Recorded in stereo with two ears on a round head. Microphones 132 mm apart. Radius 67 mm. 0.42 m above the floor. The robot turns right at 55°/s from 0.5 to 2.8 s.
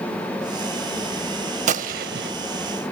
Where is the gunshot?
125° right, 0.6 m; by 2.3 s 90° right, 0.6 m.